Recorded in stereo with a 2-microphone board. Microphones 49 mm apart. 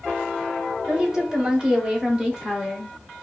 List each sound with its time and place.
0.9 s a woman speaking: 15° right (ahead or behind), 1.3 m; by 3.2 s 10° right (ahead or behind), 1.2 m